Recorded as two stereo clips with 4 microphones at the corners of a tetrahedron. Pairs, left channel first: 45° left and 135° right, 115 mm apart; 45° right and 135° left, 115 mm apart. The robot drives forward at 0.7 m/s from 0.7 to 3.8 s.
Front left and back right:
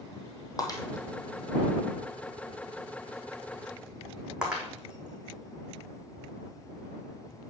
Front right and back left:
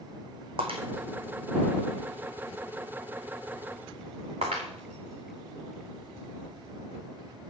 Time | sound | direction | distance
0.6 | breaking glass | 100° left | 2 m